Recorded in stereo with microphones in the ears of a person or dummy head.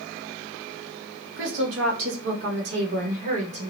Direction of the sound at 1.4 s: 65° right (ahead or behind).